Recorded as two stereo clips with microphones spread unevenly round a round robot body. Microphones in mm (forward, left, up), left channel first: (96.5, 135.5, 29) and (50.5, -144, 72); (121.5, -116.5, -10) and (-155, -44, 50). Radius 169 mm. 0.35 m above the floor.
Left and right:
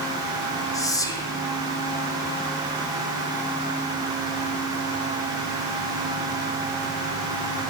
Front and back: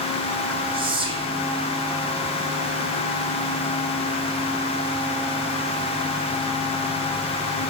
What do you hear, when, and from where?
0.7 s whispering: 90° left, 1.1 m